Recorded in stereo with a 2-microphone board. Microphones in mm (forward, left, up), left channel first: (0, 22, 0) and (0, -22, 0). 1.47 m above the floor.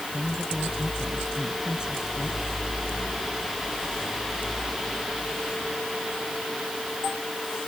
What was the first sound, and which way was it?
A woman speaking, 25° right (ahead or behind).